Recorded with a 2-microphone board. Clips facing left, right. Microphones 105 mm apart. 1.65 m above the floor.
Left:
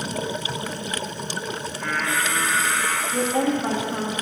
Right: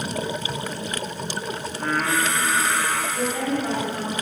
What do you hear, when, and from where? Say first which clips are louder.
1.7 s singing: right 3 dB; 45° right (ahead or behind), 1.2 m
3.1 s a woman speaking: left 3 dB; 60° left (ahead or behind), 1.3 m